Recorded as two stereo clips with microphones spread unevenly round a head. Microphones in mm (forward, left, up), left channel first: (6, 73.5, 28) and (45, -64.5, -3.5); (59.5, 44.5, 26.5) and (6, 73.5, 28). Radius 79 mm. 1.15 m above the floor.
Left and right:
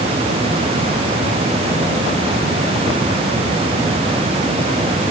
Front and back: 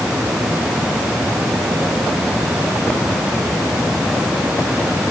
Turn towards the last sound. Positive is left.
No sound to turn to.